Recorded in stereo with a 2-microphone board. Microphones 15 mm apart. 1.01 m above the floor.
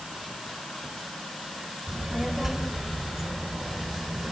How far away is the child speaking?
About 4 m.